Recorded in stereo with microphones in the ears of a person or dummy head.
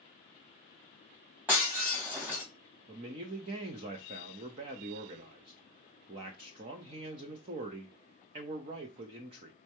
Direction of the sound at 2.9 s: 25° right (ahead or behind).